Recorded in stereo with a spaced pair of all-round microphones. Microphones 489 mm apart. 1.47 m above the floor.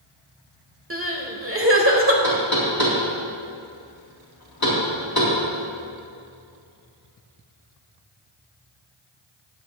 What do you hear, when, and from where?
0.9 s crying: 25° right (ahead or behind), 1.3 m
2.2 s knocking: 45° left (ahead or behind), 3 m